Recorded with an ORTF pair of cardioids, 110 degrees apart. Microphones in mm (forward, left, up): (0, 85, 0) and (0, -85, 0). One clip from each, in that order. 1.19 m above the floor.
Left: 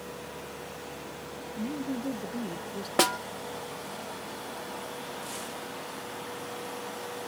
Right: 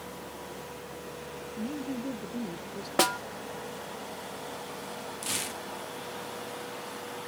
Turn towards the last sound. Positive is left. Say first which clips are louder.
# right 3 dB
turn(degrees=-70)